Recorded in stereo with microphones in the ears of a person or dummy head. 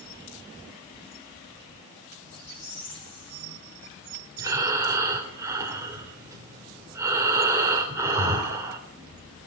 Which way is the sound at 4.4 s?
15° right (ahead or behind).